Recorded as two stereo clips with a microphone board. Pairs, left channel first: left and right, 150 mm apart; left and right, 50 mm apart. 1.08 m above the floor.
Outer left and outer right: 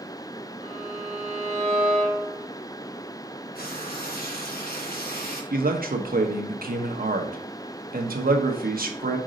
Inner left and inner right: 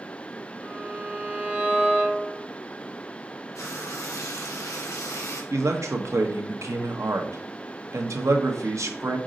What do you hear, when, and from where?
0.6 s a violin: 35° right (ahead or behind), 1.9 m
3.5 s frying: 80° left, 1.5 m
5.5 s a man speaking: 70° right (ahead or behind), 1.1 m